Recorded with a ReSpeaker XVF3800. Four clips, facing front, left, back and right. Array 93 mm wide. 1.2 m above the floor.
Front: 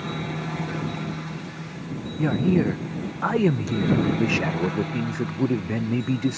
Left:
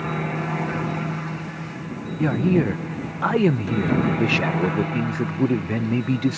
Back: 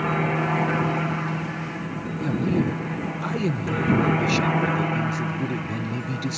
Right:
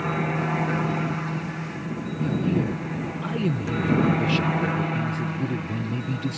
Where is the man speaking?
60° left.